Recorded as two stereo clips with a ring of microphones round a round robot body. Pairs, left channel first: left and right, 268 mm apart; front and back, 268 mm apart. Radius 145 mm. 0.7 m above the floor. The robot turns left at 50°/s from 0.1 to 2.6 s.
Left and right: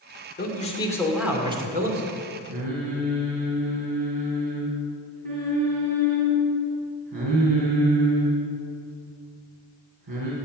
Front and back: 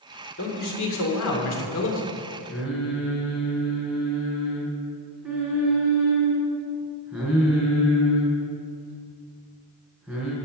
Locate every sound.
0.4 s a man speaking: 40° left, 2.5 m; by 2.1 s 45° right, 2.5 m
2.5 s singing: 90° right, 4 m; by 10.3 s 95° right, 4 m